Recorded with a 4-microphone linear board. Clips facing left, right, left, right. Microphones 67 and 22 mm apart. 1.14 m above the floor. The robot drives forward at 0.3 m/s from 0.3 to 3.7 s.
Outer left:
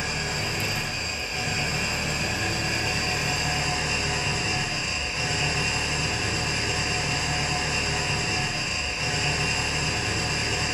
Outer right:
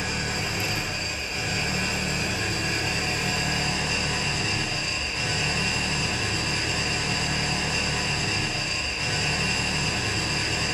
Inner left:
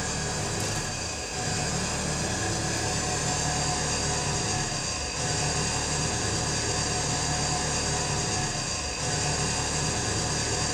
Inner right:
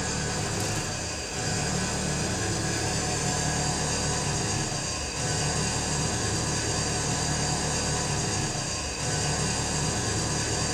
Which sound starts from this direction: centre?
An engine running, at 0.0 s.